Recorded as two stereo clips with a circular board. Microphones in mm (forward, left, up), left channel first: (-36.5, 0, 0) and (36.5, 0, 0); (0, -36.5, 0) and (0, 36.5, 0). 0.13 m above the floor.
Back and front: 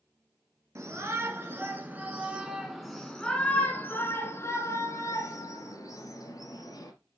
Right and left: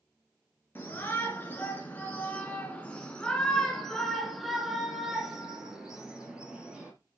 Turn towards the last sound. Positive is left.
turn(degrees=170)